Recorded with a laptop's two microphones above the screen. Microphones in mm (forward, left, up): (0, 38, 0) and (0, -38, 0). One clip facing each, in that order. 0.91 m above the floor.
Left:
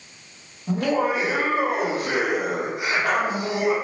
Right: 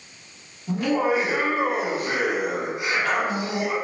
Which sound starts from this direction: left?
Laughter, at 0.7 s.